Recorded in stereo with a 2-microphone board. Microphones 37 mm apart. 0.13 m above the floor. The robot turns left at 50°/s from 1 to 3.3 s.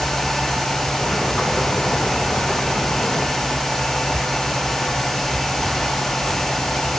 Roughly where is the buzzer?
No buzzer in this recording.